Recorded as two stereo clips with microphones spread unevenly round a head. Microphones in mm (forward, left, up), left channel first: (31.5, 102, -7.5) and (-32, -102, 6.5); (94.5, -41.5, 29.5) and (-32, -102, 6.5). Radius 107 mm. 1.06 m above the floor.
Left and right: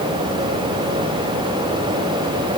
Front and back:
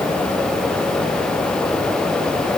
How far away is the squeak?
I don't hear a squeak.